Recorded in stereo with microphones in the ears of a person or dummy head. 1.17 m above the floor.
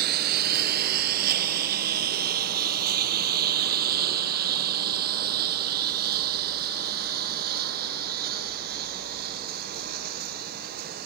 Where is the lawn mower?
60° right (ahead or behind).